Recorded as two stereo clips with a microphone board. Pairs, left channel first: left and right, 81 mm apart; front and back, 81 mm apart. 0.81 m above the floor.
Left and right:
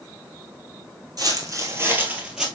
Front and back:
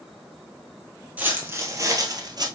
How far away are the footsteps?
About 1.4 m.